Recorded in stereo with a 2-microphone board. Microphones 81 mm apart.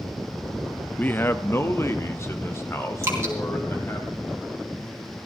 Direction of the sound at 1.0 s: 20° left (ahead or behind).